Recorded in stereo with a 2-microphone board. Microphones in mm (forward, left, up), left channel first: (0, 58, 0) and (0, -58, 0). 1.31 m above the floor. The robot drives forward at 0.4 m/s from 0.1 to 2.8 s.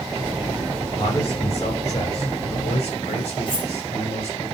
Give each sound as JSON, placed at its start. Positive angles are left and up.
{"t": 0.9, "sound": "a man speaking", "side_deg": 55, "distance_m": 6.5}
{"t": 3.5, "sound": "cutlery clinking", "side_deg": 45, "distance_m": 3.5}